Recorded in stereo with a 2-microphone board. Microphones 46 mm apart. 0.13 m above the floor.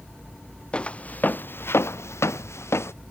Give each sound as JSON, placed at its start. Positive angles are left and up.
{"t": 0.7, "sound": "footsteps", "side_deg": 25}